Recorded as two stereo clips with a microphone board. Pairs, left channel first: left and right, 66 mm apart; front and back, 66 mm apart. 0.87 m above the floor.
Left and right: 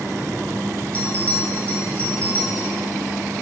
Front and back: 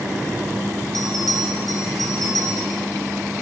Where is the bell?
160° left, 6.5 m.